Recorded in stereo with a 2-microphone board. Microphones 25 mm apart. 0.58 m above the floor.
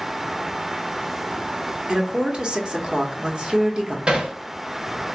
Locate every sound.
1.9 s a woman speaking: 35° right (ahead or behind), 1.1 m
4.1 s hammering: 40° right (ahead or behind), 1.5 m